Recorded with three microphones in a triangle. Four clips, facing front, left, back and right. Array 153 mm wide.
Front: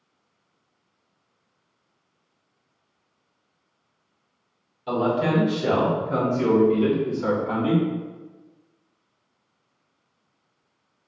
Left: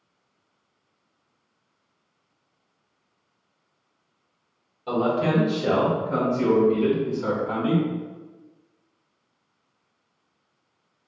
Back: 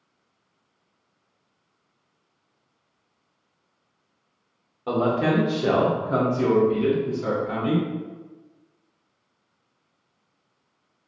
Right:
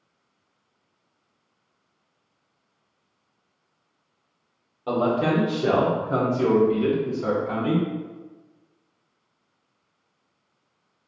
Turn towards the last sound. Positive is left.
turn(degrees=15)